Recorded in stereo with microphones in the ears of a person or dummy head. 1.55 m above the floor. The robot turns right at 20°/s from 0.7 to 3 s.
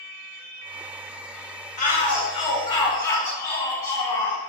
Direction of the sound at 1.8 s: 40° left (ahead or behind).